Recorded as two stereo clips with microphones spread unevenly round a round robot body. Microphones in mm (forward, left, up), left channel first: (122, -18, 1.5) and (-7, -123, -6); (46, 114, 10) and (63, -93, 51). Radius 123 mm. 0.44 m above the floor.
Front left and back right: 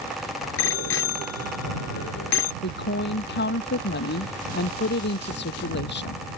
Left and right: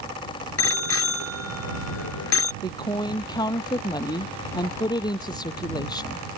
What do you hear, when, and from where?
0.6 s a bicycle bell: 75° left
2.6 s a woman speaking: 20° left